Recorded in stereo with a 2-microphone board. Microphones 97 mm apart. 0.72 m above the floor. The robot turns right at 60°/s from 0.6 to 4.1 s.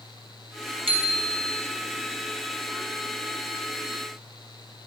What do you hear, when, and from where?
0.9 s a bicycle bell: 70° right, 5 m; by 1.5 s 30° right, 5 m